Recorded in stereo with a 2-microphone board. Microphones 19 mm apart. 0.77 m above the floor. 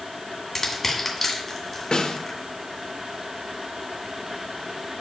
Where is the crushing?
10° left (ahead or behind), 1.7 m.